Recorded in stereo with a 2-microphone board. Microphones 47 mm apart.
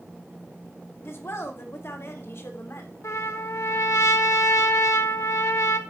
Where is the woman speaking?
60° left (ahead or behind), 1.8 m; by 2.9 s 65° left (ahead or behind), 2.5 m.